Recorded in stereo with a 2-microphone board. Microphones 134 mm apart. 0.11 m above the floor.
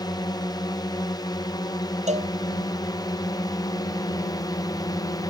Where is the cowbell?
60° right (ahead or behind).